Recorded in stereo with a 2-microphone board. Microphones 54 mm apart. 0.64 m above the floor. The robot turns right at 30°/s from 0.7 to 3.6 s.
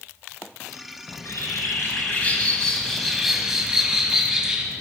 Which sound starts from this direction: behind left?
A bird, at 1.1 s.